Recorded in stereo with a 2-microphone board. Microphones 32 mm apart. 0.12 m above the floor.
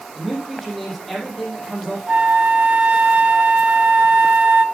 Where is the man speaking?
Centre (ahead or behind), 6 m.